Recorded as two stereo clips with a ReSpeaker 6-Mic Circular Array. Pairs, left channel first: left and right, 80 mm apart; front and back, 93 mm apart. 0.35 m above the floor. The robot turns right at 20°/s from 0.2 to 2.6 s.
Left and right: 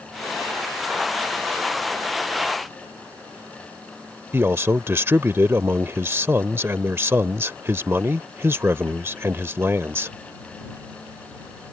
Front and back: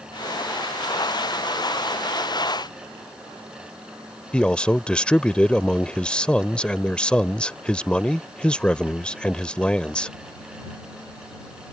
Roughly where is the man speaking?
Right.